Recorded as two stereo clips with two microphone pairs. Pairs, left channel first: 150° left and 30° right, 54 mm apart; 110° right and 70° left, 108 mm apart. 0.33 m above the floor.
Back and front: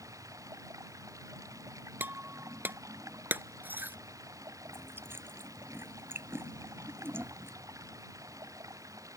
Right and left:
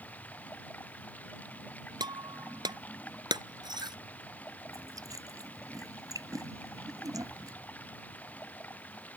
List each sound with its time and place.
0.0 s running water: 35° right
2.0 s breaking glass: 20° left
4.7 s chewing: 15° left